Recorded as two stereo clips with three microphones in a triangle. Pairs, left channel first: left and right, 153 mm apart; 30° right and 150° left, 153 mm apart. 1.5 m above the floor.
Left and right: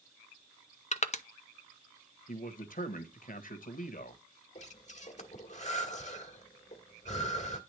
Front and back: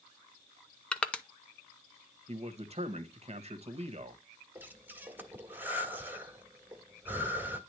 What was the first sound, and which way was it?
Crushing, 50° left.